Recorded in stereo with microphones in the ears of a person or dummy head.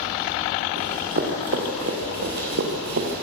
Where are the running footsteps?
40° right (ahead or behind), 4 m; by 3.2 s 60° right (ahead or behind), 3 m.